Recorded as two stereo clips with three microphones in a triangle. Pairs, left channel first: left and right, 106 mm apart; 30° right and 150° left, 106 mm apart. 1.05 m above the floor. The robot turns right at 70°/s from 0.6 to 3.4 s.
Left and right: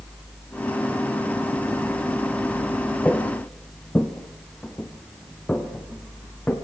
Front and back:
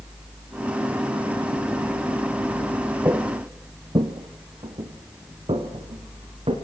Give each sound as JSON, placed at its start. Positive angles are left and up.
{"t": 3.0, "sound": "footsteps", "azimuth_deg": 140, "distance_m": 1.1}